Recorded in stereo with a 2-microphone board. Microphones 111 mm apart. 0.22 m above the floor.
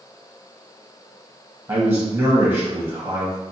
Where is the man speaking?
25° right (ahead or behind), 1.0 m.